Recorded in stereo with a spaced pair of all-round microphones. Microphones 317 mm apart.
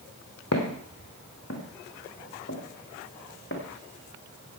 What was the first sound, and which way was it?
Footsteps, 50° left (ahead or behind).